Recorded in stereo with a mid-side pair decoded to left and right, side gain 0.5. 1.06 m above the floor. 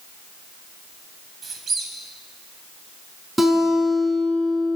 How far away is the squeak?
About 2.5 m.